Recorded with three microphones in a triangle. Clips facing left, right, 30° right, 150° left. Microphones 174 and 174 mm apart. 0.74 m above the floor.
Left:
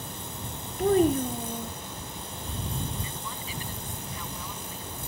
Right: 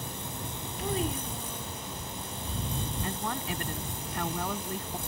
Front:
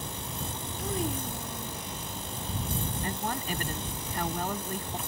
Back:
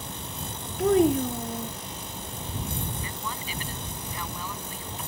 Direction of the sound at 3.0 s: 65° right.